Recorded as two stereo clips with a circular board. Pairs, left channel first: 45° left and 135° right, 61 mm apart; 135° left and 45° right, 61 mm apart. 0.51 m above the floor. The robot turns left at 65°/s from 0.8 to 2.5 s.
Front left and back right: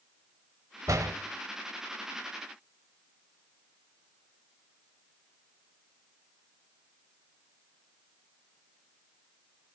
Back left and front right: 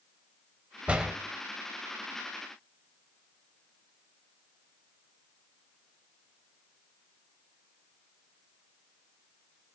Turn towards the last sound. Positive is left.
turn(degrees=140)